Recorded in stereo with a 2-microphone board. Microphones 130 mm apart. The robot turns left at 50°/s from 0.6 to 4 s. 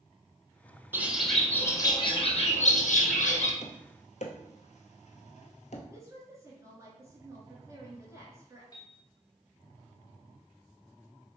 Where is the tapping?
60° left (ahead or behind), 0.8 m; by 5.8 s 65° left (ahead or behind), 0.8 m.